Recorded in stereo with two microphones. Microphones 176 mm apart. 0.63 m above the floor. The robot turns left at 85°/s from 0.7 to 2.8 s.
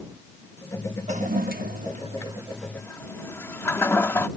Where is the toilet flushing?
40° right (ahead or behind); by 4.3 s 15° left (ahead or behind).